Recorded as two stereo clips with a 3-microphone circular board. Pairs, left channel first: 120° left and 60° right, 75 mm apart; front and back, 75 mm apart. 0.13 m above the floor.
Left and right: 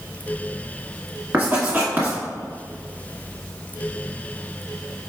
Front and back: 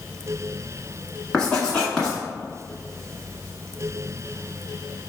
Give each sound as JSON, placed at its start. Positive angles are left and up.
{"t": 1.3, "sound": "writing", "azimuth_deg": -65, "distance_m": 1.4}